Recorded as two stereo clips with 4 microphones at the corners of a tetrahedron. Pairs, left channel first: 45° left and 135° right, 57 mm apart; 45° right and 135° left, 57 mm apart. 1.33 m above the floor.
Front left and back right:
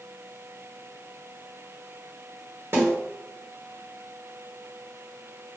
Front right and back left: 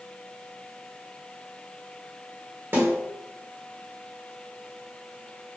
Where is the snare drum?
Straight behind, 1.3 m.